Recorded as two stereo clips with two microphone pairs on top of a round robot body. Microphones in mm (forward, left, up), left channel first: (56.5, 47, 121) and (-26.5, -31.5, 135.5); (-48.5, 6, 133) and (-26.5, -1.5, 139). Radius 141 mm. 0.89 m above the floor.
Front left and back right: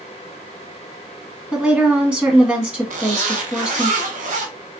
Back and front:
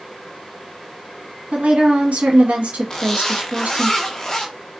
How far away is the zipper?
About 0.5 m.